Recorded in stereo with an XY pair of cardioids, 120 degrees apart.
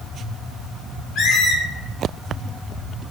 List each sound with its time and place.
1.1 s a squeak: 55° left, 0.6 m